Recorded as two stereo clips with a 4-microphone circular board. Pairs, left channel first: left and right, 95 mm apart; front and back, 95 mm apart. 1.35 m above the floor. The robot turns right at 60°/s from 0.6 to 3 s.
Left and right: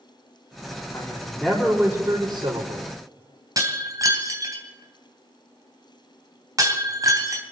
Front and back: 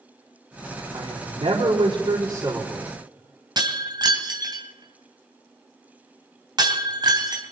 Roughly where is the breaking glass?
Behind right.